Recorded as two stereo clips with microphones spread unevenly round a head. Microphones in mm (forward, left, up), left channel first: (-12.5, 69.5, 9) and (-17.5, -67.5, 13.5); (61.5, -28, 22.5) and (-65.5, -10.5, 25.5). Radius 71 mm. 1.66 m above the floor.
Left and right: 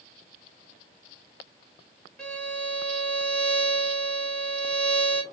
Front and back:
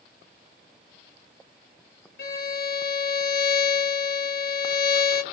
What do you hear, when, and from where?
2.2 s a violin: 5° left, 1.2 m